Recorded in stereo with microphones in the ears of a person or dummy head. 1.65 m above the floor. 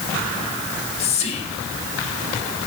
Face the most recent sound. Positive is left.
turn(degrees=35)  # may be behind; listen again after turning